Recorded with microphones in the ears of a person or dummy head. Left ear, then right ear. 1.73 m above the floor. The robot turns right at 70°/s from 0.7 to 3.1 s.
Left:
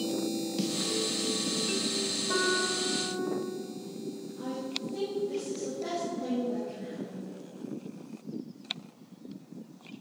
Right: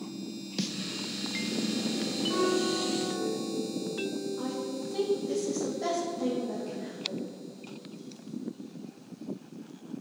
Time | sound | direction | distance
0.6 | a snare drum | 10° right (ahead or behind) | 0.6 m
2.3 | a piano | 105° left | 3 m
4.4 | a woman speaking | 75° right (ahead or behind) | 2.5 m